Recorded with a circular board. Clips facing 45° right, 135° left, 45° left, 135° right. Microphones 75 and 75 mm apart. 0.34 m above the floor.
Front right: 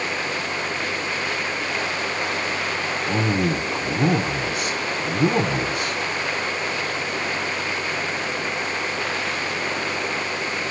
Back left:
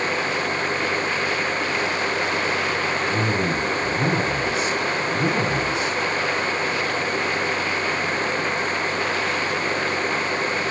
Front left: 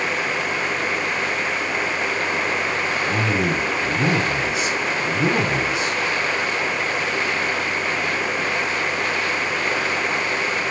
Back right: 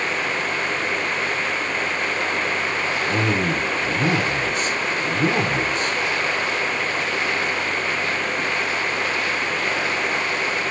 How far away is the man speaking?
About 2 m.